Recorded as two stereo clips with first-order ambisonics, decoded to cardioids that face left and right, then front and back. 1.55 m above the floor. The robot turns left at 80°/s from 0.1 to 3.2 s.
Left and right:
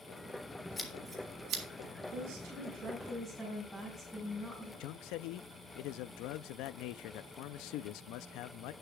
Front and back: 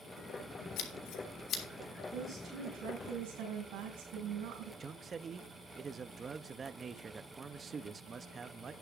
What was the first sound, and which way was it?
Scissors, 15° left.